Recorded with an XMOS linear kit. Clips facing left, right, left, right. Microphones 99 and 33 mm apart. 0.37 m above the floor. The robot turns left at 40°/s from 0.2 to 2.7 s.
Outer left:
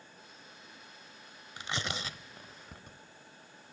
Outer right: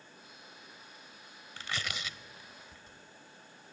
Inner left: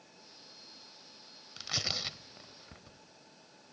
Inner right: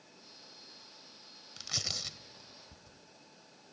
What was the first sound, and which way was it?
Tearing paper, 15° left (ahead or behind).